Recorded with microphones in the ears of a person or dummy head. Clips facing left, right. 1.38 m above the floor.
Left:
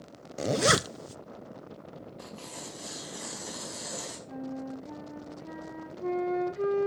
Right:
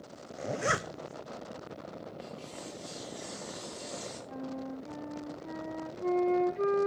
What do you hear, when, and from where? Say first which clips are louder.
0.4 s a zipper: left 7 dB; 50° left (ahead or behind), 0.5 m
2.2 s tearing paper: right 1 dB; 75° left (ahead or behind), 4.5 m
4.3 s a flute: left 2 dB; 5° left (ahead or behind), 1.3 m